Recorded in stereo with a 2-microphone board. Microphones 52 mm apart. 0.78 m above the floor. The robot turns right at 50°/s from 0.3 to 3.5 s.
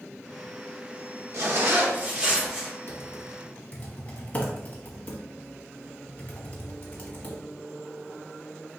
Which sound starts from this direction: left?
Typing on a keyboard, at 2.9 s.